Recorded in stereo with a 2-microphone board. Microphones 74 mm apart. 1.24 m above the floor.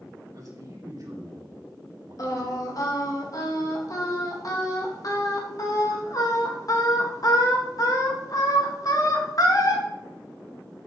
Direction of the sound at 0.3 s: 45° right (ahead or behind).